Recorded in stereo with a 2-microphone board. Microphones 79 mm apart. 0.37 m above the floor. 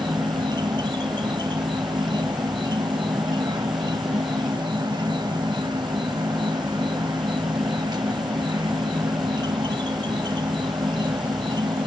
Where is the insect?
70° right (ahead or behind), 0.9 m.